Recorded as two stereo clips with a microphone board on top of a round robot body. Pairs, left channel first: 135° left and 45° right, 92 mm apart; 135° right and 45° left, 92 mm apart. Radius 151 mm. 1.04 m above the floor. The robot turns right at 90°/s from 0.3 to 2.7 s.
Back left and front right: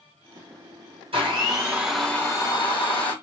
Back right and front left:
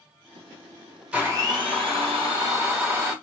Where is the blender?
35° right, 1.2 m; by 3.1 s 110° left, 1.2 m.